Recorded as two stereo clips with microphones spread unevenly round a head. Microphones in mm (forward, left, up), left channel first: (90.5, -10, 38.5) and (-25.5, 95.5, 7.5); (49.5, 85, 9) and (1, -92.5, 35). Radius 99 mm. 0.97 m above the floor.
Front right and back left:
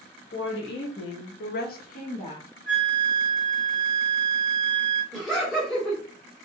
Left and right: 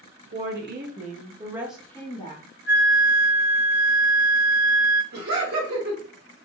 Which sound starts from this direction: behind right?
Laughter, at 5.1 s.